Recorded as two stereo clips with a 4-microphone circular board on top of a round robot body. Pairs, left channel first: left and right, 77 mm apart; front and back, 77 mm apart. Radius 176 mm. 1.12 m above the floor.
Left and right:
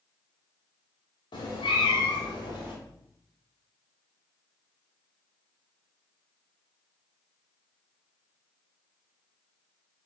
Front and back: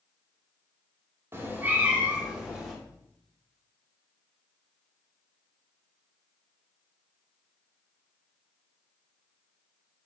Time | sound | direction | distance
1.3 | a cat meowing | 120° left | 1.5 m